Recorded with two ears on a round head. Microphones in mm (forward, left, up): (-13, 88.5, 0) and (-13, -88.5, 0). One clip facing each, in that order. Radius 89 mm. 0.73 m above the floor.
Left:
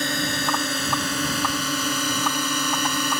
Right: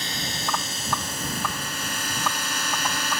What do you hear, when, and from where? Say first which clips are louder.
0.0 s a drone: left 7 dB; 45° left (ahead or behind); by 3.2 s 75° left (ahead or behind)